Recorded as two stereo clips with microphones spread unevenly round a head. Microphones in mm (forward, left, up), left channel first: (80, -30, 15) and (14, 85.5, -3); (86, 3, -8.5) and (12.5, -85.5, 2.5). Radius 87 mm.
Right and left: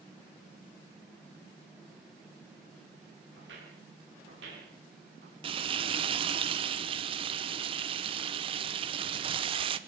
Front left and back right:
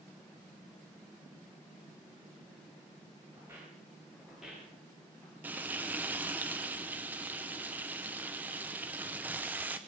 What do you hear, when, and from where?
3.4 s footsteps: 155° left, 6.5 m; by 5.3 s 135° left, 8.5 m
5.4 s frying: 150° left, 0.8 m